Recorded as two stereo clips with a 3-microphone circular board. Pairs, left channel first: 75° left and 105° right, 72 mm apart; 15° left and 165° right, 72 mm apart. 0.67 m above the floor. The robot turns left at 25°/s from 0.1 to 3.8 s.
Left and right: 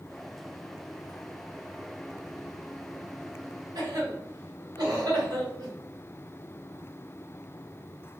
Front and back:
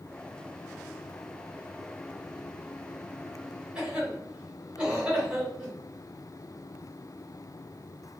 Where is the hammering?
No hammering in this recording.